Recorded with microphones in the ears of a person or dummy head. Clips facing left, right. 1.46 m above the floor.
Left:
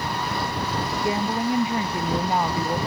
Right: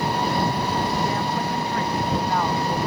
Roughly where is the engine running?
Right.